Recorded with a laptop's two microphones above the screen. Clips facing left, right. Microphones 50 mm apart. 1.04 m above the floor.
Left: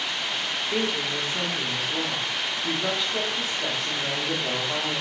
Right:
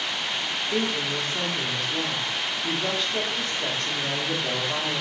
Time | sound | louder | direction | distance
0.7 | a woman speaking | even | 5° left (ahead or behind) | 1.1 m